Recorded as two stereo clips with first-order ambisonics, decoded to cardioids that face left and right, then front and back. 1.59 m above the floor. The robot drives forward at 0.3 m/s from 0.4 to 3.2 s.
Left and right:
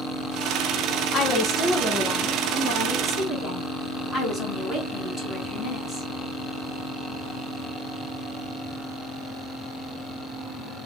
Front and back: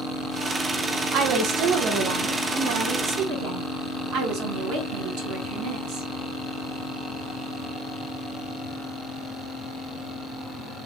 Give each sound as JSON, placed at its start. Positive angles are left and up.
{"t": 1.1, "sound": "a woman speaking", "azimuth_deg": 150, "distance_m": 0.8}